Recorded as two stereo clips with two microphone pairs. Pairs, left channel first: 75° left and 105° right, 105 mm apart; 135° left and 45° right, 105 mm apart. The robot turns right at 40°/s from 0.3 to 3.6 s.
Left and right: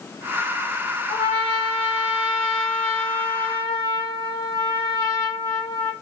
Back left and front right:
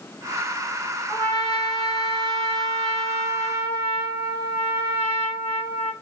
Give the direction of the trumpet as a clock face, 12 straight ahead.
2 o'clock.